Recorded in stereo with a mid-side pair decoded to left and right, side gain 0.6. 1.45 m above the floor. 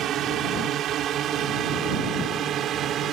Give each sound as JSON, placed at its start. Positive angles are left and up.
{"t": 0.0, "sound": "a drone", "azimuth_deg": -55}